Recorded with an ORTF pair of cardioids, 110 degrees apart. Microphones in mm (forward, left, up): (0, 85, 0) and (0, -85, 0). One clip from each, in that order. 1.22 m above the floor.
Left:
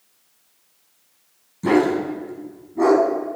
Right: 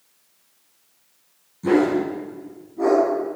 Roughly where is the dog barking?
Ahead left.